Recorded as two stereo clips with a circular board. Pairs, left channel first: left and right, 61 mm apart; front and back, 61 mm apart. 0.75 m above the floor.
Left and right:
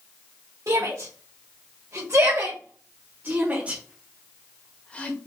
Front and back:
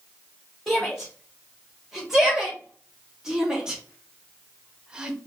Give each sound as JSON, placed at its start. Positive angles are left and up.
{"t": 0.7, "sound": "a shout", "azimuth_deg": -90, "distance_m": 2.0}